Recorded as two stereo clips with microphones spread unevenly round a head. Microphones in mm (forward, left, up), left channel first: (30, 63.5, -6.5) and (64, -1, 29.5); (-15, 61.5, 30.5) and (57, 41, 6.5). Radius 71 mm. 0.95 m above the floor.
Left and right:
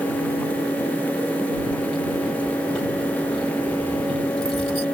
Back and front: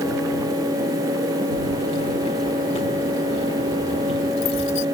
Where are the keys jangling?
155° right.